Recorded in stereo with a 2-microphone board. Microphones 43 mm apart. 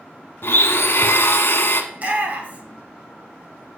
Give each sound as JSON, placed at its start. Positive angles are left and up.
{"t": 0.4, "sound": "a blender", "side_deg": 60, "distance_m": 0.8}
{"t": 1.9, "sound": "a shout", "side_deg": -35, "distance_m": 1.5}